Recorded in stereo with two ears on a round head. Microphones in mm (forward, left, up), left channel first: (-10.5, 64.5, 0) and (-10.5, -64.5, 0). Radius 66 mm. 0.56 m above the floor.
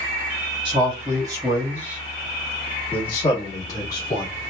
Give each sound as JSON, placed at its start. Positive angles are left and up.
{"t": 0.7, "sound": "a man speaking", "side_deg": -35, "distance_m": 1.4}